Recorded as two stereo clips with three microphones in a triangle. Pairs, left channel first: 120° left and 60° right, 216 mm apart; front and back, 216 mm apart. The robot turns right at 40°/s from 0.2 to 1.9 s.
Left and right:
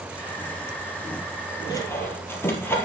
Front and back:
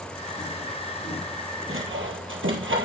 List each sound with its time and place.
1.7 s sawing: 170° right, 2.0 m; by 2.9 s 160° right, 2.0 m